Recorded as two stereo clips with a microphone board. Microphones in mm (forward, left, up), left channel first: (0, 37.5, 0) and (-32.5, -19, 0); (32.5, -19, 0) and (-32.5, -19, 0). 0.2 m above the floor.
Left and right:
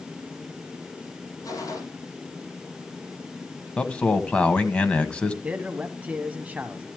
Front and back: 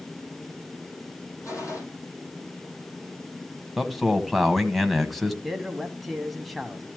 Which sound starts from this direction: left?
A man speaking, at 3.8 s.